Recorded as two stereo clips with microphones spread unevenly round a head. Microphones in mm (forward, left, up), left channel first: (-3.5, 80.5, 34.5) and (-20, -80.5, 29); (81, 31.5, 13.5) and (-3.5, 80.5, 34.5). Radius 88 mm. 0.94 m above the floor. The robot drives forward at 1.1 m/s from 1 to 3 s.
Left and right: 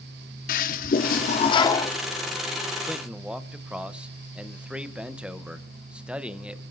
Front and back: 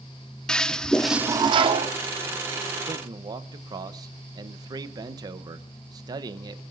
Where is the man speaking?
165° right, 0.7 m; by 6.6 s 170° right, 0.7 m.